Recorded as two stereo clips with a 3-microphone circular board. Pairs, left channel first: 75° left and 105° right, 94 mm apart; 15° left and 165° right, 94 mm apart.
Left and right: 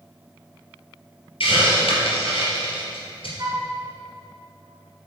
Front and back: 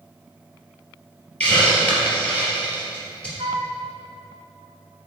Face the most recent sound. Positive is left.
turn(degrees=-155)